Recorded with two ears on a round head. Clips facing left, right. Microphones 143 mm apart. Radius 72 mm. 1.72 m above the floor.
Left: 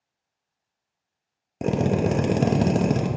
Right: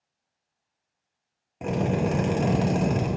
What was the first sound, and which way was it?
A drill, 45° left (ahead or behind).